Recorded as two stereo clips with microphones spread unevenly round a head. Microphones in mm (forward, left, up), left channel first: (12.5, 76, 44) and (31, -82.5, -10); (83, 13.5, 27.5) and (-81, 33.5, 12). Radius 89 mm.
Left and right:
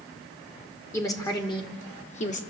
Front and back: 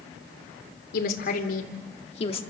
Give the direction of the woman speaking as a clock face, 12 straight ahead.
11 o'clock.